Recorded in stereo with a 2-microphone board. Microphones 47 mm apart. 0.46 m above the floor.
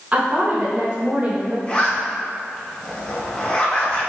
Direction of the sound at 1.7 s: 25° left (ahead or behind).